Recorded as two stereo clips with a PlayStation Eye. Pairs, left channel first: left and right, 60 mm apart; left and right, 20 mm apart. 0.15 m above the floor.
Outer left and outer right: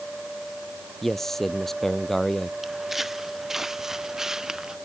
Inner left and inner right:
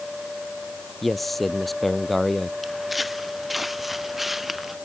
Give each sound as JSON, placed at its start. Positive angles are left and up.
{"t": 1.0, "sound": "a man speaking", "side_deg": 5}
{"t": 2.6, "sound": "footsteps", "side_deg": 0}